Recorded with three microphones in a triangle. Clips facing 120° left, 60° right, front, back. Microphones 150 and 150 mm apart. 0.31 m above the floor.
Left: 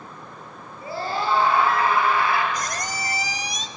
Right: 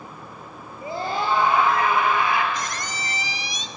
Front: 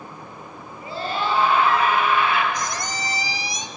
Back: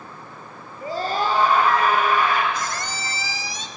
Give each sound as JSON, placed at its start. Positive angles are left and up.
{"t": 0.8, "sound": "a scream", "azimuth_deg": -130, "distance_m": 6.0}
{"t": 2.5, "sound": "a squeak", "azimuth_deg": 70, "distance_m": 1.1}